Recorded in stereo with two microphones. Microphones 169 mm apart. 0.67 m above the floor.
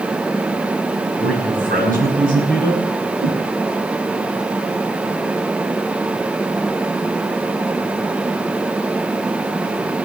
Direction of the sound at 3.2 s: 65° right (ahead or behind).